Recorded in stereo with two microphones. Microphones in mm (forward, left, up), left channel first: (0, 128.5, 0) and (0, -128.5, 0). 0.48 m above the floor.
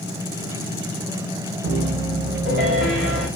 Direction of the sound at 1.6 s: 45° right (ahead or behind).